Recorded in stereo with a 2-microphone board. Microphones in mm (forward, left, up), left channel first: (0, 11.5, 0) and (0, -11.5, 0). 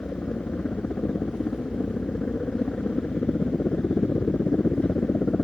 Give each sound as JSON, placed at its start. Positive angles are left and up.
{"t": 0.0, "sound": "a helicopter", "side_deg": 65}